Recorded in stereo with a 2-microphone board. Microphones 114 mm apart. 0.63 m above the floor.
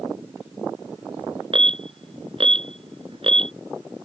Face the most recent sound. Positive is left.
turn(degrees=-55)  # may be behind; listen again after turning